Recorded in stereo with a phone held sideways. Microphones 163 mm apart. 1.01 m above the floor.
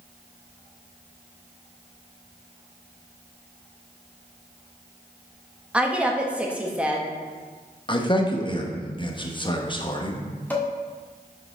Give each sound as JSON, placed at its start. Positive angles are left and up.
{"t": 5.7, "sound": "a woman speaking", "side_deg": -5, "distance_m": 1.2}
{"t": 7.9, "sound": "a man speaking", "side_deg": 30, "distance_m": 1.1}
{"t": 10.5, "sound": "dishes clattering", "side_deg": 10, "distance_m": 1.6}